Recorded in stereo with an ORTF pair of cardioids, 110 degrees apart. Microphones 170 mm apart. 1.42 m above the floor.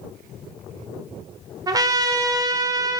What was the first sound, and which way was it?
A trumpet, 20° right.